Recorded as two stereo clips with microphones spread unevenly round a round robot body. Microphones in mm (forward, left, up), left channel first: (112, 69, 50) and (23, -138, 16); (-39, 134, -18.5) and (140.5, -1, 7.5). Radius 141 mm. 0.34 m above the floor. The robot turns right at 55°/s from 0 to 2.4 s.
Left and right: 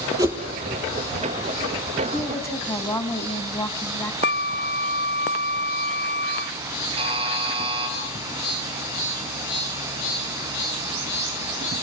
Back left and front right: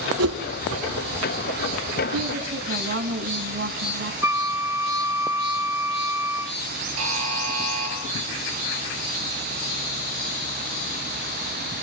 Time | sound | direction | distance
0.2 | a whoosh | 40° right | 4 m
2.1 | a woman speaking | 30° right | 3.5 m
4.2 | a flute | 40° left | 0.8 m
7.0 | a buzzer | 50° right | 6.5 m